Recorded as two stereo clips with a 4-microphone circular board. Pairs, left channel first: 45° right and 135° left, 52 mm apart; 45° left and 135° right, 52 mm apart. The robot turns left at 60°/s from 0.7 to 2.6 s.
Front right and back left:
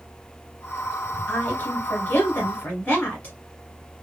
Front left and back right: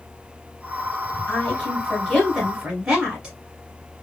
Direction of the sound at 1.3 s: Straight ahead.